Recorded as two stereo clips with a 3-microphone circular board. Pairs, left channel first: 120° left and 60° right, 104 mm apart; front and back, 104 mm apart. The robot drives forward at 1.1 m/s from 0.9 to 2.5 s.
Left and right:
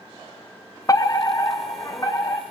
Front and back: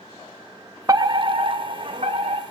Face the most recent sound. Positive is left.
turn(degrees=175)